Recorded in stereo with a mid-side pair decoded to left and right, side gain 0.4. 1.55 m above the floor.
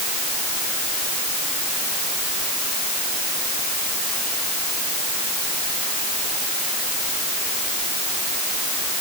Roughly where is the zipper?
I don't hear a zipper.